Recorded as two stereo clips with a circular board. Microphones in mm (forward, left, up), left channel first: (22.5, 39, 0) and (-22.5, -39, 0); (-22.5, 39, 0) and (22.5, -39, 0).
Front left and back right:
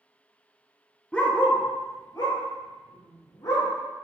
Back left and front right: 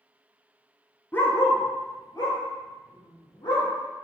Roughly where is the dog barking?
Behind left.